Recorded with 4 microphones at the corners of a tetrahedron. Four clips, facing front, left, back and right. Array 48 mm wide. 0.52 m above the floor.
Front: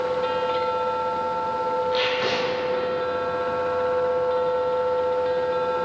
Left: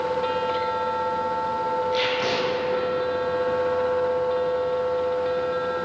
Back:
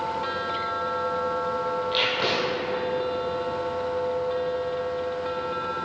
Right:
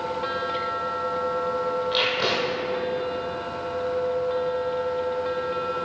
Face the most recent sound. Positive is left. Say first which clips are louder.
# even, front 1 dB
turn(degrees=-130)